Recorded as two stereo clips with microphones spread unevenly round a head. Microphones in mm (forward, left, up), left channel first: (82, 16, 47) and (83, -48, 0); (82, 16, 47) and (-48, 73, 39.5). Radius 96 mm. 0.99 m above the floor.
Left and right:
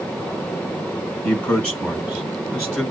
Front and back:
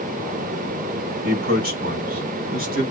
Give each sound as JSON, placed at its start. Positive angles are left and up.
{"t": 1.2, "sound": "a man speaking", "azimuth_deg": 165, "distance_m": 4.5}